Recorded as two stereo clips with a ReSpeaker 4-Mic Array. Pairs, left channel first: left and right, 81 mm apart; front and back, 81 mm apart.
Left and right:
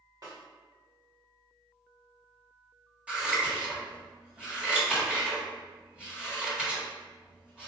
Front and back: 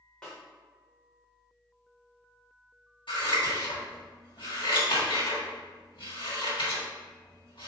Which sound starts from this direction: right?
A snare drum, at 0.2 s.